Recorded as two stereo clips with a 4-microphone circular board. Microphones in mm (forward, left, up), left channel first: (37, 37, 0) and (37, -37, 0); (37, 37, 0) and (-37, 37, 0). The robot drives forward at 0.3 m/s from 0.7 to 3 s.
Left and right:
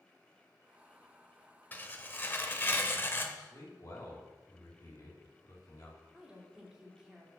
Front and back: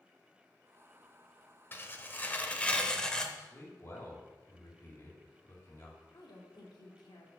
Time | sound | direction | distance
1.7 | tearing paper | 40° left | 1.1 m
3.4 | a man speaking | 50° left | 3 m
6.1 | a woman speaking | 10° right | 2.5 m